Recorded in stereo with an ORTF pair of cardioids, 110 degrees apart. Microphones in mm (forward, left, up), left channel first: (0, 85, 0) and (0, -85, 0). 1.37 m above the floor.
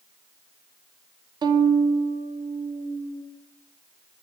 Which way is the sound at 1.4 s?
25° right.